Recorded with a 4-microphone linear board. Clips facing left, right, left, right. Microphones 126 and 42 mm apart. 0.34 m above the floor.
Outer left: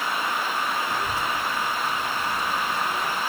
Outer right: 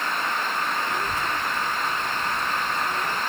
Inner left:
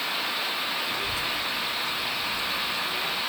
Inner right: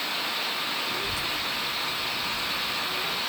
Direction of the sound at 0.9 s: 35° left (ahead or behind).